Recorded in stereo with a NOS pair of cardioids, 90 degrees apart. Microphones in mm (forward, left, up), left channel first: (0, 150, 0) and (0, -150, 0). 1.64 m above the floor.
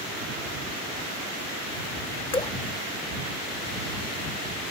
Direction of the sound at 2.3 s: 20° left.